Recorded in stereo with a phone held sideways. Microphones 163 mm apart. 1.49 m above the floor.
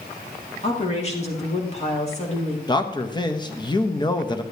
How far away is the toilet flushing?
I don't hear a toilet flushing.